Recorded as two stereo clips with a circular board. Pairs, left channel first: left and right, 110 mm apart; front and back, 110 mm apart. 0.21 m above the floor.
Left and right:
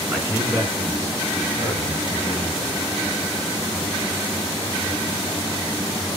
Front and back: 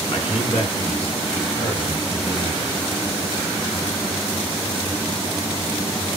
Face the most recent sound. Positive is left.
turn(degrees=-40)